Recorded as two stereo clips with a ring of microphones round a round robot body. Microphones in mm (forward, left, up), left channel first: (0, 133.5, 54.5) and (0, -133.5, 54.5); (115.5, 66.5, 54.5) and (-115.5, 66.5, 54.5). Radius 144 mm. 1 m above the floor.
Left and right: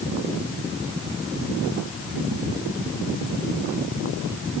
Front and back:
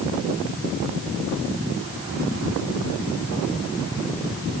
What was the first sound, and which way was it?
Only background noise.